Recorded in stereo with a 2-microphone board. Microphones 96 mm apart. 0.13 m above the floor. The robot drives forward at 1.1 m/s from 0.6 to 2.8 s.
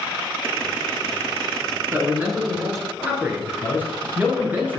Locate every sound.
1.9 s a man speaking: 25° right (ahead or behind), 1.3 m; by 4.8 s 20° right (ahead or behind), 1.7 m